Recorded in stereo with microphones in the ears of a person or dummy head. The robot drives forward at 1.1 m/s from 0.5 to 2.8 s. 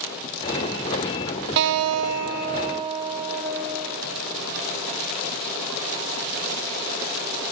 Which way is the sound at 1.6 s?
55° right (ahead or behind).